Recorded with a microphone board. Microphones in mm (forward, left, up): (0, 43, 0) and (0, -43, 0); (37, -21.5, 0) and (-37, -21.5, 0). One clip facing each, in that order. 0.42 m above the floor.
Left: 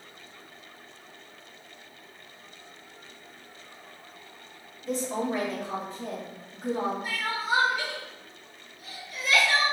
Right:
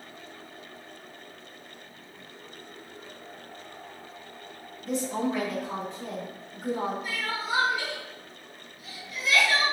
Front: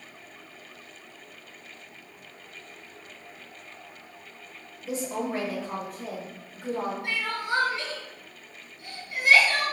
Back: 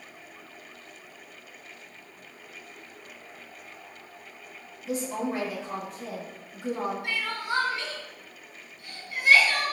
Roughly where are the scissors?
No scissors in this recording.